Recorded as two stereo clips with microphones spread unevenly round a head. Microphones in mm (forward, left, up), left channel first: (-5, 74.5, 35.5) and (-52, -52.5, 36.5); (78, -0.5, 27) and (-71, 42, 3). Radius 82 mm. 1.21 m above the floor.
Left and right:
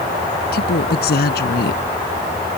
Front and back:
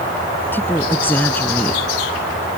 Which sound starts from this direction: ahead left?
A woman speaking, at 0.5 s.